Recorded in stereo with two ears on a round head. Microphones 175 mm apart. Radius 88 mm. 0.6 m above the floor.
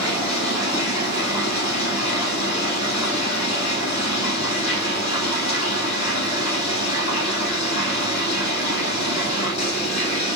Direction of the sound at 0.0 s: 40° left (ahead or behind).